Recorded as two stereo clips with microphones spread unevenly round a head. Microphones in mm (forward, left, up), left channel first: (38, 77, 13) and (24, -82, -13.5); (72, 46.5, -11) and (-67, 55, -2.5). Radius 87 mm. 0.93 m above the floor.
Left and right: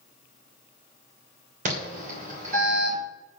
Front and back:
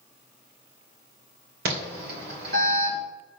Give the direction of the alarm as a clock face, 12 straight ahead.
5 o'clock.